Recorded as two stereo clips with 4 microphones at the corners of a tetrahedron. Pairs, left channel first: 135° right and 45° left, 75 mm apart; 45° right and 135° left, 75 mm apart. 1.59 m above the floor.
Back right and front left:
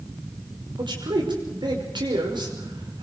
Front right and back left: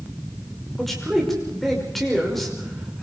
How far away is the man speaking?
About 6 m.